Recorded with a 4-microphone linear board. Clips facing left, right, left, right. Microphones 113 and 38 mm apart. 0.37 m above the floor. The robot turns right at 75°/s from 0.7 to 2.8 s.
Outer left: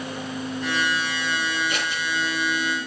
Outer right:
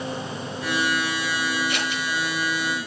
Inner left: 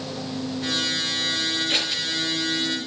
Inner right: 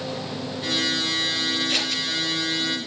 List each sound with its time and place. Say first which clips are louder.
1.7 s scissors: outer right 1 dB, even; 50° left (ahead or behind), 5.5 m; by 2.0 s 25° left (ahead or behind), 5.5 m